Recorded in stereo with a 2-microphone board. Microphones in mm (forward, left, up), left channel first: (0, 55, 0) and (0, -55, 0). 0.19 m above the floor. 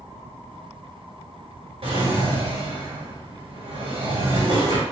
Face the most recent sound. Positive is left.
turn(degrees=-60)  # may be behind; listen again after turning